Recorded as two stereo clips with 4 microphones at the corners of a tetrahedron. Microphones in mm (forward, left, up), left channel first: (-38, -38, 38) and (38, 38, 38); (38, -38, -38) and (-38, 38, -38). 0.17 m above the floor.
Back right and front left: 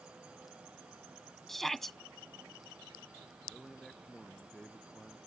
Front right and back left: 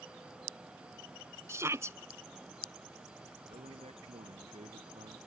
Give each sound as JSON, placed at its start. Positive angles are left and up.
{"t": 1.5, "sound": "a shout", "azimuth_deg": 140}
{"t": 3.5, "sound": "a man speaking", "azimuth_deg": 140}